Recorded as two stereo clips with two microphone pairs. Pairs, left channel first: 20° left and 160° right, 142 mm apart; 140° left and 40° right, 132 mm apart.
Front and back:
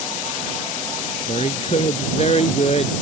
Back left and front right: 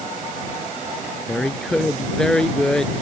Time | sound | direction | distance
1.3 | a woman speaking | 55° left | ?